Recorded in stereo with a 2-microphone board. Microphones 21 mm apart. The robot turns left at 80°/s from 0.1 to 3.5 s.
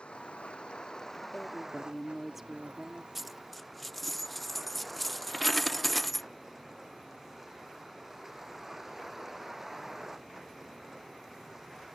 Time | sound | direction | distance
0.0 | a vehicle | 105° left | ?
1.3 | a woman speaking | 70° left | ?
3.1 | a dropped coin | 10° right (ahead or behind) | ?